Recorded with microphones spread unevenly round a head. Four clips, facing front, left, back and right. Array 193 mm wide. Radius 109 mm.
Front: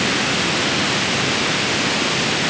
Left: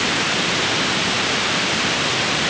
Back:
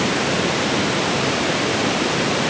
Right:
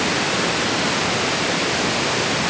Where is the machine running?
I don't hear a machine running.